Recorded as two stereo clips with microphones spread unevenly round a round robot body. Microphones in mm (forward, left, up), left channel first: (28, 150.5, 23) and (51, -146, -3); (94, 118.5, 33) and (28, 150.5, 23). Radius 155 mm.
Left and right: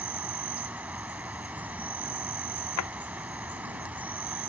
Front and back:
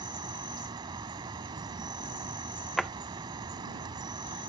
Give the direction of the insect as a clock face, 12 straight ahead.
6 o'clock.